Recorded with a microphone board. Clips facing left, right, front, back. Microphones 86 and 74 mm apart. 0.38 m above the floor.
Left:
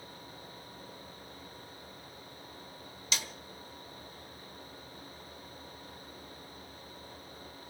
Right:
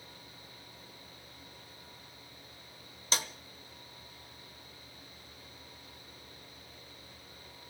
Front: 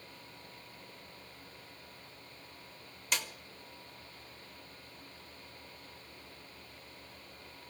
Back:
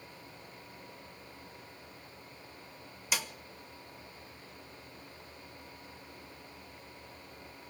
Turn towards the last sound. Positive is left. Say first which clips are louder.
# right 3 dB, back 1 dB
turn(degrees=-100)